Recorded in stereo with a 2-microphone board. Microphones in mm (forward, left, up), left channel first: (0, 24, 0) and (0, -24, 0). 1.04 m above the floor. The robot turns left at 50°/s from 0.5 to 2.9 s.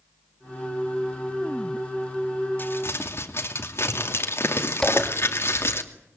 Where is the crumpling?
45° left (ahead or behind), 2.5 m; by 5.8 s 60° left (ahead or behind), 2.5 m.